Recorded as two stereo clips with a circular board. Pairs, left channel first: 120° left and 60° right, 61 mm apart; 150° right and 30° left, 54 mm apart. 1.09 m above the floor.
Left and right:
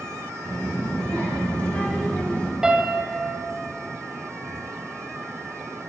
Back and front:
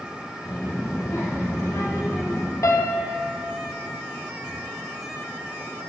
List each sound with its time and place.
0.5 s a child speaking: 175° right, 1.6 m
2.6 s a piano: 140° right, 0.7 m